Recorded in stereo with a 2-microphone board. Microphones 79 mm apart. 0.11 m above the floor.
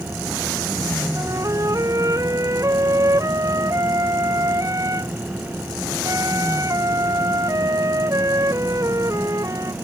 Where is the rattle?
No rattle in this recording.